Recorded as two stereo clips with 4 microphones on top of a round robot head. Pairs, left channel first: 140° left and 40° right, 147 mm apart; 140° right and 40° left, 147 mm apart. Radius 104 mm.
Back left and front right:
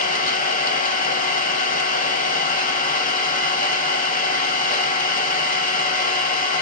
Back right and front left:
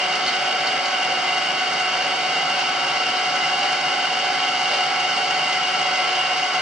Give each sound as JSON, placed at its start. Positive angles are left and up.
{"t": 0.0, "sound": "an engine running", "azimuth_deg": 130, "distance_m": 1.2}